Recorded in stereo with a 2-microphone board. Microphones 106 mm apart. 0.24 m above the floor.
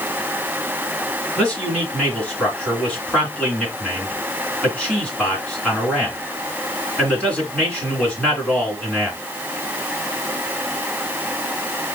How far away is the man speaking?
About 2.5 m.